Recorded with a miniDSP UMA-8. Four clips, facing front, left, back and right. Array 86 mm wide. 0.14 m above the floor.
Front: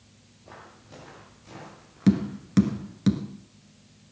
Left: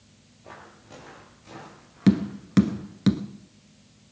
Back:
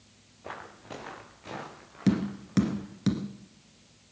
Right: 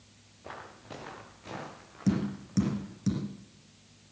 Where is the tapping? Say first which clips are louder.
Left 8 dB, front 4 dB; 85° left, 1.3 m.